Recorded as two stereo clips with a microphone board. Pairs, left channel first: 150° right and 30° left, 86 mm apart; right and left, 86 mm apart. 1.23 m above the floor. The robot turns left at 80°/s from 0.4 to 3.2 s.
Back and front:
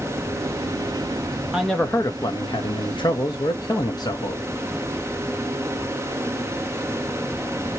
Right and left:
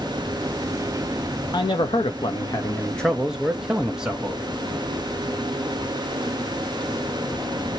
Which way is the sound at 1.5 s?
55° right.